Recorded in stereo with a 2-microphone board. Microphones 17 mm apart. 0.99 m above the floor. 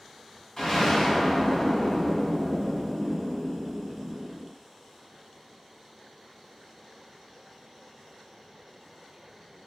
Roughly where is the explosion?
Left.